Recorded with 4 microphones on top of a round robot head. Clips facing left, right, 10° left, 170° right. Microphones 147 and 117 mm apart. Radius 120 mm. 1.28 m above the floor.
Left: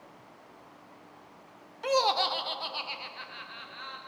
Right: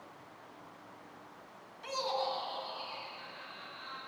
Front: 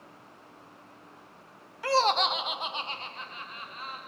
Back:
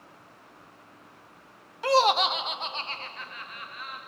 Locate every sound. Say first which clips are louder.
1.8 s laughter: left 8 dB, back 3 dB; 120° left, 0.6 m; by 4.0 s 65° left, 1.4 m